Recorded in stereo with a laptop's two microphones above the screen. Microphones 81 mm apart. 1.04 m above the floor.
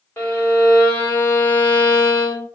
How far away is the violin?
About 1.3 m.